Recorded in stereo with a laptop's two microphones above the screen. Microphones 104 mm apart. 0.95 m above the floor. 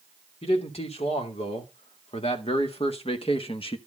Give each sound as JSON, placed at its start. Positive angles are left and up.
{"t": 0.4, "sound": "a man speaking", "side_deg": 75, "distance_m": 3.0}